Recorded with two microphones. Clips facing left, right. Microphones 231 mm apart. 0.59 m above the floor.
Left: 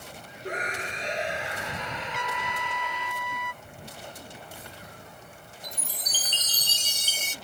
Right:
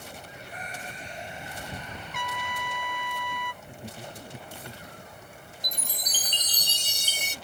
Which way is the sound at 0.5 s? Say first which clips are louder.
Left 10 dB; 85° left.